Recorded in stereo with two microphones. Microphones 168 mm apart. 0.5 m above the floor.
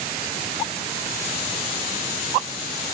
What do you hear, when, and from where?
Only background noise.